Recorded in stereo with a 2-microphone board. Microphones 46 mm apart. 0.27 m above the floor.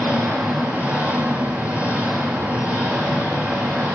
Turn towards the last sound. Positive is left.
turn(degrees=-30)  # may be behind; listen again after turning